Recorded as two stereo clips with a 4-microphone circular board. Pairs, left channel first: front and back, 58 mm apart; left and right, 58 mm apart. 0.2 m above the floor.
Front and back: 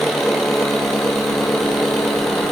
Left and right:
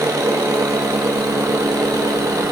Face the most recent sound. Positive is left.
turn(degrees=-85)